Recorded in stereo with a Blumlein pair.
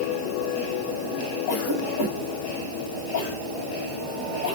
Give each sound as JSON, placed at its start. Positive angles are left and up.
{"t": 1.5, "sound": "a cough", "azimuth_deg": 55, "distance_m": 5.5}